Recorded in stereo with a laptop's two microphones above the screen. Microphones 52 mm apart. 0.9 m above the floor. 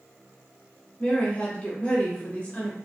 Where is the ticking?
No ticking in this recording.